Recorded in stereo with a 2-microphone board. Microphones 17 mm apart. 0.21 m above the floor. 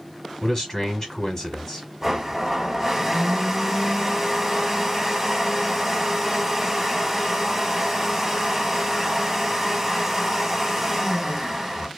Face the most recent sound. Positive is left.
turn(degrees=-20)  # may be behind; listen again after turning